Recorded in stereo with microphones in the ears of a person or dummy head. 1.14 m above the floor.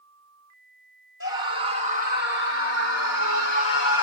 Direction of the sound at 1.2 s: 55° left (ahead or behind).